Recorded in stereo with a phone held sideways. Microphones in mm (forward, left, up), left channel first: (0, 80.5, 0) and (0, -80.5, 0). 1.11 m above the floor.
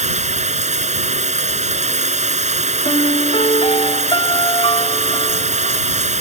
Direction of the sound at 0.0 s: 45° right (ahead or behind).